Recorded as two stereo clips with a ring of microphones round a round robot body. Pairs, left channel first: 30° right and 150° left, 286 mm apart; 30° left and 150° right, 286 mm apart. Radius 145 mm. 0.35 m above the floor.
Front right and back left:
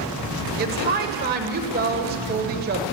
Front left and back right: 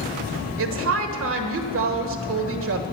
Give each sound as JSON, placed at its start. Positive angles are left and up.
{"t": 0.6, "sound": "a woman speaking", "azimuth_deg": -165, "distance_m": 1.3}